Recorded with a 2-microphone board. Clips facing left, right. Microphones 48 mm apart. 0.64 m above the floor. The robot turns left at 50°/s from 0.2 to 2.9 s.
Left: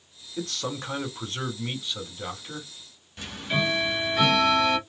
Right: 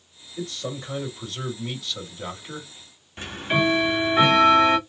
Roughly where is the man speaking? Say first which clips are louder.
Even; left.